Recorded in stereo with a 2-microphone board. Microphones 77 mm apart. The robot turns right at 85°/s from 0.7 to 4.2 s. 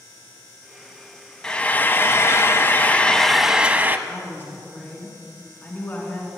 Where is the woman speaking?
40° left (ahead or behind), 2 m; by 6.3 s 30° left (ahead or behind), 2 m.